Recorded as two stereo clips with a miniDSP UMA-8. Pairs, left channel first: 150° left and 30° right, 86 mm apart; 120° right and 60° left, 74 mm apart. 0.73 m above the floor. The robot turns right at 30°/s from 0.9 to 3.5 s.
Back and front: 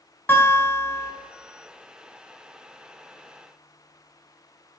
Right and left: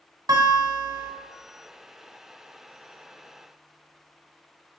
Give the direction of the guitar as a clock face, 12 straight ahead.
9 o'clock.